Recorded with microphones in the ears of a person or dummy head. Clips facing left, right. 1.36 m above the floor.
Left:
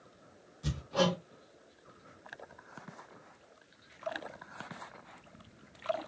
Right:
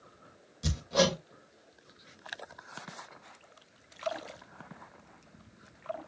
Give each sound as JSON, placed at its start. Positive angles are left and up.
{"t": 0.6, "sound": "hammering", "side_deg": -35, "distance_m": 3.0}